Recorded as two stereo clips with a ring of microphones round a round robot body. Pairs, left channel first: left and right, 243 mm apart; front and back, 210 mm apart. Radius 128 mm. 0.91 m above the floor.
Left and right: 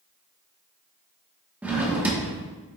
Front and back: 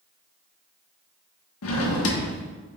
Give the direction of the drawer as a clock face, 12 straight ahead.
12 o'clock.